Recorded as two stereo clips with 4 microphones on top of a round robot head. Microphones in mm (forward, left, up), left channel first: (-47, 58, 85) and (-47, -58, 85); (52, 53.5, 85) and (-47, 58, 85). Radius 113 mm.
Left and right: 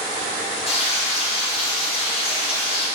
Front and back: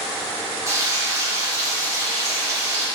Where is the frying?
115° left, 3 m.